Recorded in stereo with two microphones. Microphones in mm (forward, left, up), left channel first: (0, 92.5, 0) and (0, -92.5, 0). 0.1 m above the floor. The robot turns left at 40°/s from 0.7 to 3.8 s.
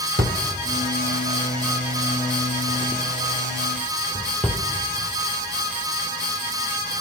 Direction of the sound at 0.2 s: 60° right (ahead or behind).